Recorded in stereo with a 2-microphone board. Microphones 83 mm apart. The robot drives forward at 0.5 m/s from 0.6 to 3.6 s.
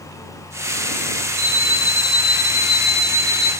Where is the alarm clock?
5° right (ahead or behind), 1.9 m; by 3.5 s centre (ahead or behind), 3 m.